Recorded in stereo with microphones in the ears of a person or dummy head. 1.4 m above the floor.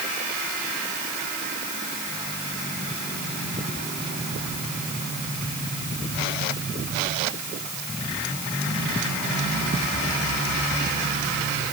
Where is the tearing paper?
I don't hear tearing paper.